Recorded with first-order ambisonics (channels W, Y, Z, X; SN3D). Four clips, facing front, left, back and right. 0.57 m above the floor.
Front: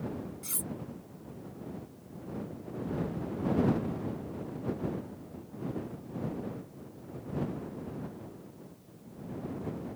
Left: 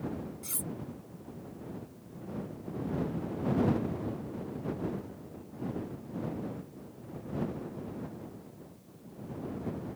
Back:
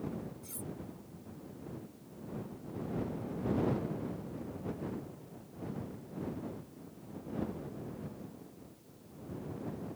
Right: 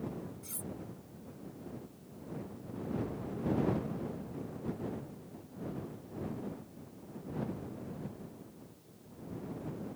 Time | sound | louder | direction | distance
0.4 | cutlery clinking | left 5 dB, front 5 dB | 35° left | ?